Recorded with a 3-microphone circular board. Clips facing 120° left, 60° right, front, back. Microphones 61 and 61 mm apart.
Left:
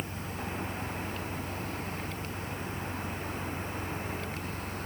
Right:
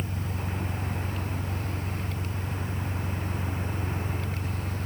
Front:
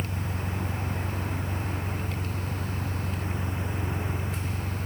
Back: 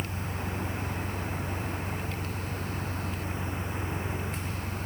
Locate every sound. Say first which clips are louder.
0.0 s an engine running: right 3 dB, front 1 dB; 40° right